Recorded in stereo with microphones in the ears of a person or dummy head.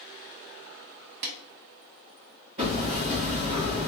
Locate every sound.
1.2 s a snare drum: 55° right (ahead or behind), 0.6 m
2.6 s hammering: 30° right (ahead or behind), 0.9 m